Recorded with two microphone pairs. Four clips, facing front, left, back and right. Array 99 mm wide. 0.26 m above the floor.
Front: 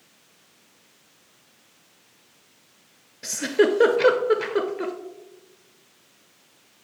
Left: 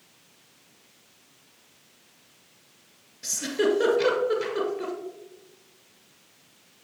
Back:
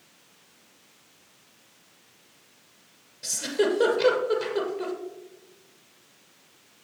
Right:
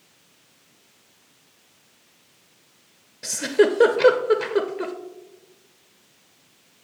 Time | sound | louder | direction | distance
3.2 | a giggle | right 6 dB, front 5 dB | 45° right | 0.8 m